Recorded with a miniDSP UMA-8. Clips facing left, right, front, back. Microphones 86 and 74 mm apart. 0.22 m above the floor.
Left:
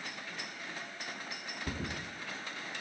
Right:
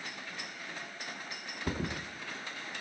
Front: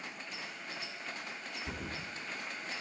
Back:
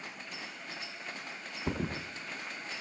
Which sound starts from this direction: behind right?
A thud, at 1.7 s.